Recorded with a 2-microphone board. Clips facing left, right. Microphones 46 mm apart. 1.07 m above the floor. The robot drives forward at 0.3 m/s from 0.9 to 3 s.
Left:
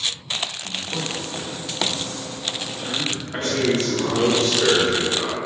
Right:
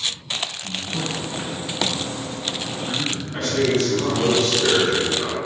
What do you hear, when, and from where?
0.6 s a man speaking: 75° left (ahead or behind), 1.3 m; by 4.3 s 50° left (ahead or behind), 1.6 m
3.3 s a man speaking: 40° left (ahead or behind), 1.3 m